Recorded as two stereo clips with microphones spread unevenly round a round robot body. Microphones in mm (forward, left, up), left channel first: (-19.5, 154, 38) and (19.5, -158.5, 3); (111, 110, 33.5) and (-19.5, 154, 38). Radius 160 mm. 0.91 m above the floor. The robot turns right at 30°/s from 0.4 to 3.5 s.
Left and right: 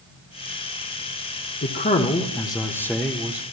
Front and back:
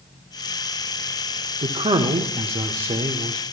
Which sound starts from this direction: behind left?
A man speaking, at 1.6 s.